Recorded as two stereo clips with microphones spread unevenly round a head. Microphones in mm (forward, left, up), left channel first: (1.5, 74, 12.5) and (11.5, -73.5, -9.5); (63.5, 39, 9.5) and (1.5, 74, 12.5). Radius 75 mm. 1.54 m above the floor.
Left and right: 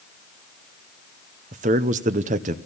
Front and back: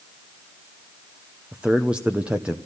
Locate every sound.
1.5 s a man speaking: 125° right, 0.9 m